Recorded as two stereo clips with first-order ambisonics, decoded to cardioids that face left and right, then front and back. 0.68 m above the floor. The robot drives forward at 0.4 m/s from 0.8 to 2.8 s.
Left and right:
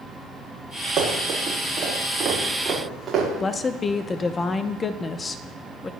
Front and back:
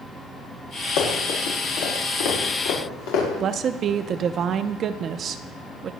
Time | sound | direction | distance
1.0 | running footsteps | 25° right | 5 m
3.4 | a woman speaking | 145° left | 0.5 m